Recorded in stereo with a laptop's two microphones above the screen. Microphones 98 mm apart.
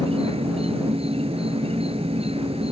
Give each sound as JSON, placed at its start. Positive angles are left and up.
{"t": 0.0, "sound": "an insect", "side_deg": -85}